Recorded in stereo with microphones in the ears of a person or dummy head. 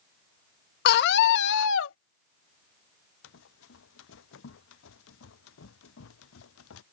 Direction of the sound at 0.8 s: 60° left (ahead or behind).